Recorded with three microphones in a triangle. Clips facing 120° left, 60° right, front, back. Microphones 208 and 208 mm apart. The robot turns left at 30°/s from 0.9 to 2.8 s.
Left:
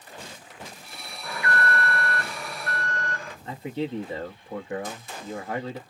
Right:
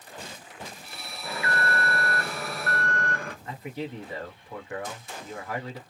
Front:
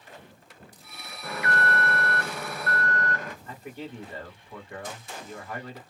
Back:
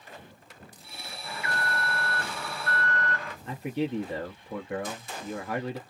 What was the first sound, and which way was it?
An alarm, 10° left.